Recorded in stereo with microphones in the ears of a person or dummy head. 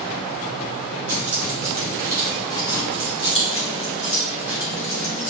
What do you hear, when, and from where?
1.1 s keys jangling: 15° right (ahead or behind), 1.5 m; by 5.3 s 45° left (ahead or behind), 3 m